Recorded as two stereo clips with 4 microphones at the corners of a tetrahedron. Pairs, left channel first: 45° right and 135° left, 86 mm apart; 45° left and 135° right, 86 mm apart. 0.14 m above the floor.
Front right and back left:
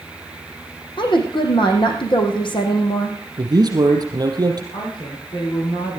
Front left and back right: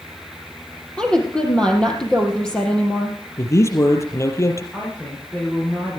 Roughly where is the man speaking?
Left.